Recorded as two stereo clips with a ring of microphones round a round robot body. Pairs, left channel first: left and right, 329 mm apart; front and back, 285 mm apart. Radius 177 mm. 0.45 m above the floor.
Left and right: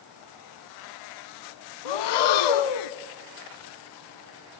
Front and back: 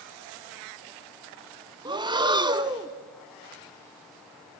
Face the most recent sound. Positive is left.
turn(degrees=105)